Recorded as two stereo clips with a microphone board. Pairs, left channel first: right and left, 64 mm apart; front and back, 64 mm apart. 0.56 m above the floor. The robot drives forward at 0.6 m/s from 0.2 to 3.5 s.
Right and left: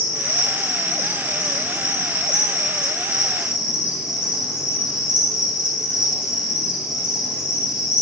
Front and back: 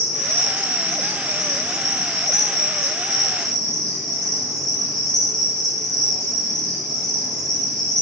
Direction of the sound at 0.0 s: 140° left.